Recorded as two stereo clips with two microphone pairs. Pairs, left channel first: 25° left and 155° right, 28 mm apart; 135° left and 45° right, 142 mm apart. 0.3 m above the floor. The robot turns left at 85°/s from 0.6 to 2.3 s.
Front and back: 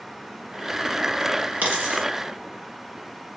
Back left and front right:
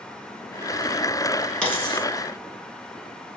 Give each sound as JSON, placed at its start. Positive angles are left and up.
{"t": 1.6, "sound": "a dropped coin", "azimuth_deg": -145, "distance_m": 1.1}